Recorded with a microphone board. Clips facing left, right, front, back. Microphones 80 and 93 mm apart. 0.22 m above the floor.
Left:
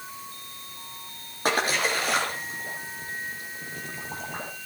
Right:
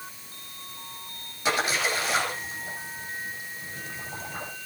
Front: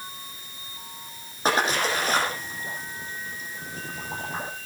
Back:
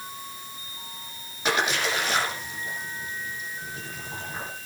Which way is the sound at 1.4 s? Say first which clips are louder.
Left 1 dB, front 2 dB; 50° left.